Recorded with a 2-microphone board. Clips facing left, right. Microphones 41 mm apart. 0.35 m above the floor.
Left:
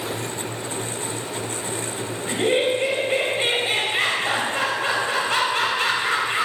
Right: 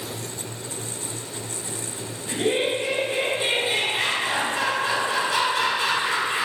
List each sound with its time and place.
2.3 s laughter: 50° left (ahead or behind), 1.6 m